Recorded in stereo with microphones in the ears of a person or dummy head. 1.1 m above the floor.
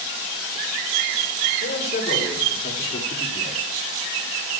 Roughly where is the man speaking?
Left.